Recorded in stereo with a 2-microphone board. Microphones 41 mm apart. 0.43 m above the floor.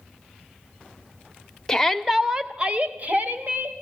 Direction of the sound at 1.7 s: 15° left (ahead or behind).